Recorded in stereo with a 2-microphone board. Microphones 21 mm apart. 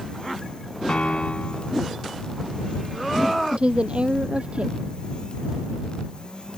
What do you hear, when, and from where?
0.9 s a piano: 65° left (ahead or behind)
3.5 s a woman speaking: 60° right (ahead or behind)